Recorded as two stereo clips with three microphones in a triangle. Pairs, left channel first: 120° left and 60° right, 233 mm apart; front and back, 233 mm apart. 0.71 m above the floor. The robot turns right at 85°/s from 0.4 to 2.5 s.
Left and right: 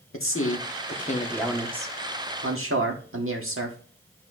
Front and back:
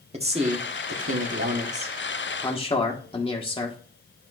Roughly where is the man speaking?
Behind left.